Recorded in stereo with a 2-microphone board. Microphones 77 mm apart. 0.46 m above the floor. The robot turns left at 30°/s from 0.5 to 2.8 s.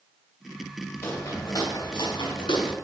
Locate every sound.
1.0 s footsteps: 25° left (ahead or behind), 3 m; by 2.7 s 80° left, 3 m